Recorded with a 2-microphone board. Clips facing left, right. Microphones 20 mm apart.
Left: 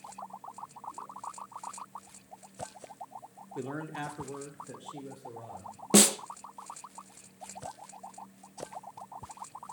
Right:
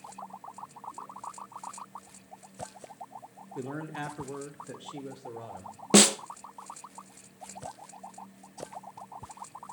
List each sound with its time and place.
3.5 s a man speaking: 10° left (ahead or behind), 2.5 m; by 5.8 s 50° right (ahead or behind), 4 m
5.9 s a snare drum: 15° right (ahead or behind), 0.9 m